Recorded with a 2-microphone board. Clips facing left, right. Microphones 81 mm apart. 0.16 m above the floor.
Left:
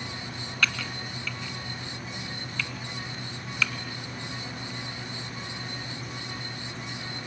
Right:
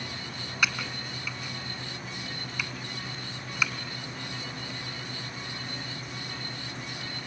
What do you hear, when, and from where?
0.6 s typing on a keyboard: 15° right (ahead or behind), 1.5 m